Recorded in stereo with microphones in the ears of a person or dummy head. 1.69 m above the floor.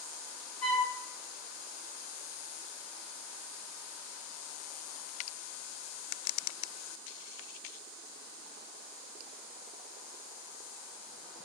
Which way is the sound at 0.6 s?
50° left (ahead or behind).